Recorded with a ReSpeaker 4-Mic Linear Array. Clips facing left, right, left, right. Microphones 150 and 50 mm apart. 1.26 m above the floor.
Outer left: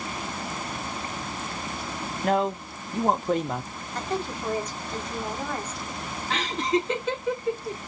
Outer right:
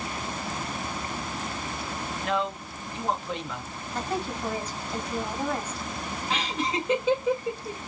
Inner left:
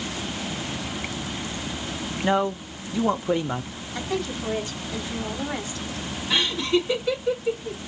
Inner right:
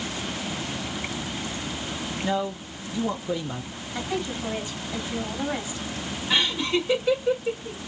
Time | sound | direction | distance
2.2 | a man speaking | 45° left (ahead or behind) | 0.6 m
4.0 | a woman speaking | 10° right (ahead or behind) | 3 m
6.3 | laughter | 10° right (ahead or behind) | 2.5 m